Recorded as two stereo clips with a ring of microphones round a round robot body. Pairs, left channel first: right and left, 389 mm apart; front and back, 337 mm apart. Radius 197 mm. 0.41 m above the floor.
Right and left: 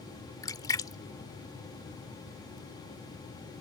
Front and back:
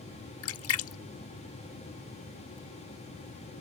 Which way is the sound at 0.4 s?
15° right.